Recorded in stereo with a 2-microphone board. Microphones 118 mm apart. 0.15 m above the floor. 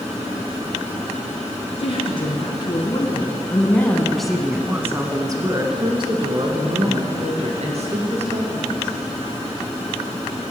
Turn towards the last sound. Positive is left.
turn(degrees=-70)  # may be behind; listen again after turning